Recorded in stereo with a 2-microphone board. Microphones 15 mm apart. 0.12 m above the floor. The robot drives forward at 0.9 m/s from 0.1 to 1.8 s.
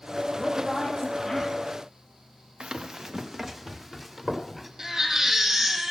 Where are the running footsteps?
65° right (ahead or behind), 0.7 m; by 4.7 s 10° right (ahead or behind), 2.5 m.